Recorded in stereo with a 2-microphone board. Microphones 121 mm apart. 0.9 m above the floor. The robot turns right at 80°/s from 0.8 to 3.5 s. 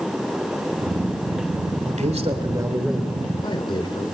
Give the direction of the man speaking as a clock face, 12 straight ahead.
3 o'clock.